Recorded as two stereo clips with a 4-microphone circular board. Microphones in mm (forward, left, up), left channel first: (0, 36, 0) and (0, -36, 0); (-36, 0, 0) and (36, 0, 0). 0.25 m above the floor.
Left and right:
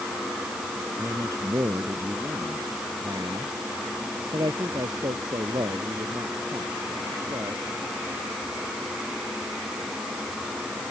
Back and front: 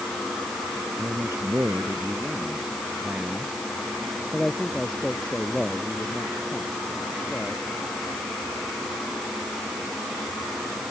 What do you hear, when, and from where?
1.0 s a man speaking: 45° right; by 7.6 s 110° right